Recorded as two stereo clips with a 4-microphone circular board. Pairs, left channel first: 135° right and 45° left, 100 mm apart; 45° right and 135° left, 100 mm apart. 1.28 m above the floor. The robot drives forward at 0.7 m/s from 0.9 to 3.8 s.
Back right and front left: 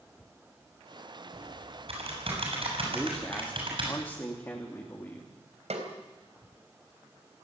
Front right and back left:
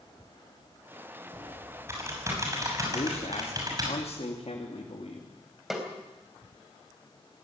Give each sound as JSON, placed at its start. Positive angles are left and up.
{"t": 1.3, "sound": "typing on a keyboard", "azimuth_deg": 65, "distance_m": 7.0}
{"t": 2.9, "sound": "a man speaking", "azimuth_deg": -55, "distance_m": 3.0}
{"t": 5.7, "sound": "a snare drum", "azimuth_deg": 45, "distance_m": 4.0}